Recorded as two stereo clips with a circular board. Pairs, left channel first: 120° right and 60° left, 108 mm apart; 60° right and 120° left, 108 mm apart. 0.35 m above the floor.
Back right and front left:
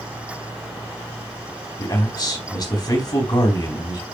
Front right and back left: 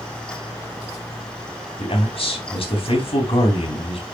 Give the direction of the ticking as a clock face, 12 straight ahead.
I don't hear ticking.